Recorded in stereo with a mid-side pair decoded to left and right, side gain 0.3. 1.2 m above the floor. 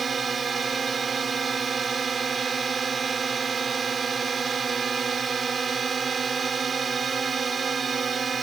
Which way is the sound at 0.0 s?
60° right.